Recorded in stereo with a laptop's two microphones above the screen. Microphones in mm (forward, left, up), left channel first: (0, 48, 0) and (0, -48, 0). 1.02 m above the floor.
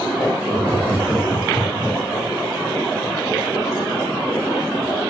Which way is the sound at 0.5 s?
5° left (ahead or behind).